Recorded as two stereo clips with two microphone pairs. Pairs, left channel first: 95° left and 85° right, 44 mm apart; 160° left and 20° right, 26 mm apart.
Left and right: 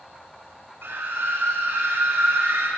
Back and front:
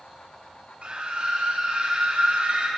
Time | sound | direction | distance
0.8 | a scream | 55° right | 7.5 m